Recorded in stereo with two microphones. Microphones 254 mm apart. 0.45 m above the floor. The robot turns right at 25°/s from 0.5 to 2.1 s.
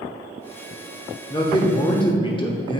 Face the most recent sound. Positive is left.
turn(degrees=20)  # may be behind; listen again after turning